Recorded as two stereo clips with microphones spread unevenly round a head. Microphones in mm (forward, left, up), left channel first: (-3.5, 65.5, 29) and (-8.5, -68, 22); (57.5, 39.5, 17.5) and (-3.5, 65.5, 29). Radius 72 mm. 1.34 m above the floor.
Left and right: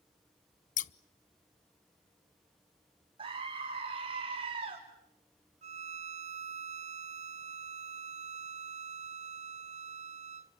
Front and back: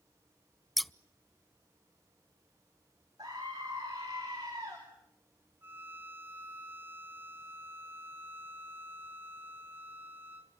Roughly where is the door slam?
No door slam in this recording.